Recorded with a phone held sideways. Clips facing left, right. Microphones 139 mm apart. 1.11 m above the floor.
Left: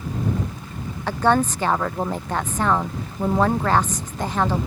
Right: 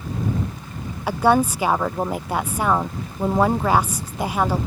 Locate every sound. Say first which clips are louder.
1.1 s a woman speaking: right 2 dB; 10° right (ahead or behind)